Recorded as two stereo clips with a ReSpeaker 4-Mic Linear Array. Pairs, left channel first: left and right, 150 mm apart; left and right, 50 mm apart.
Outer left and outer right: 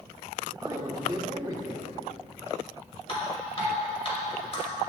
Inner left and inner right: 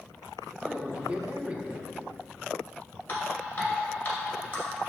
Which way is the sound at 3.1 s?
40° left (ahead or behind).